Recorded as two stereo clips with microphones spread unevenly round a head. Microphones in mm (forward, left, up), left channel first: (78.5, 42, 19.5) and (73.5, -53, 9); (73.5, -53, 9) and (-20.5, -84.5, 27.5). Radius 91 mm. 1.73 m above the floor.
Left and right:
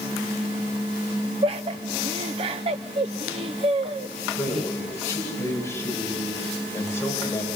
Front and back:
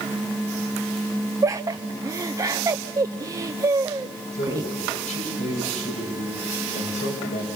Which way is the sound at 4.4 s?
25° left.